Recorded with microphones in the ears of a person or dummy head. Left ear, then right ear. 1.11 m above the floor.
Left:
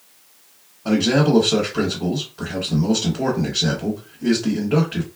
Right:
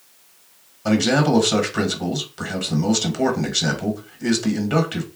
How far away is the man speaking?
About 1.2 m.